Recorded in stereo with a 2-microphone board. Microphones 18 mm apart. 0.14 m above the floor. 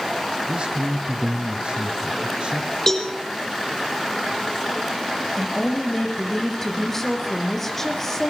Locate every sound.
0.5 s a man speaking: 55° right (ahead or behind), 2.5 m
2.9 s a cowbell: 25° left (ahead or behind), 5 m
5.4 s a woman speaking: 15° left (ahead or behind), 6 m